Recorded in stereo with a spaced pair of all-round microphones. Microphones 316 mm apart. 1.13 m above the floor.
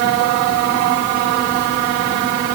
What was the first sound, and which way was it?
Only background noise.